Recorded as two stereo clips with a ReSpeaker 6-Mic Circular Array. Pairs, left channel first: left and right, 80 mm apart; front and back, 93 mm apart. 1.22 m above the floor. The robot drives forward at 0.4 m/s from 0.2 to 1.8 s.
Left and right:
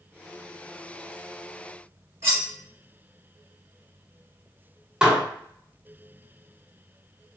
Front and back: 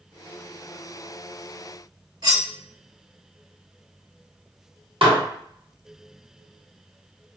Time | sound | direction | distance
2.2 | cutlery clinking | 145° right | 2.0 m
5.0 | dishes clattering | 170° right | 1.1 m